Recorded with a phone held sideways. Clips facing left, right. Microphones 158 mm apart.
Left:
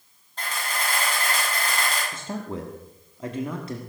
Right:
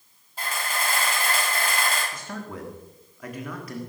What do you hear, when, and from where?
0.4 s a camera shutter: 10° right (ahead or behind), 6 m
2.1 s a man speaking: 25° left (ahead or behind), 1.3 m